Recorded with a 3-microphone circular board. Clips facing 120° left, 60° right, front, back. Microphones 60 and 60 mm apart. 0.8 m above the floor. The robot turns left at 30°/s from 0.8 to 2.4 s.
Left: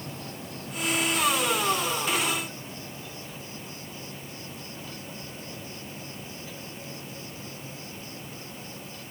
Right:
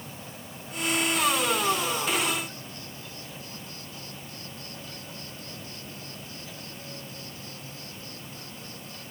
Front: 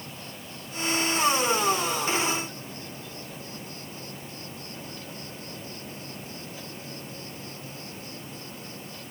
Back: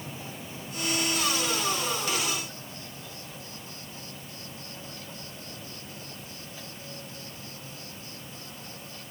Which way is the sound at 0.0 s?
100° left.